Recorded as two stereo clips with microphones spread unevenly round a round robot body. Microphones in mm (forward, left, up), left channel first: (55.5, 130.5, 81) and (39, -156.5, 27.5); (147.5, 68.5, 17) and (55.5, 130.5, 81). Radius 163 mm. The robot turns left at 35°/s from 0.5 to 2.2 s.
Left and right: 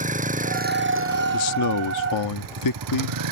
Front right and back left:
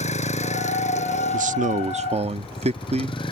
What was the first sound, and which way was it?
A vehicle, 30° right.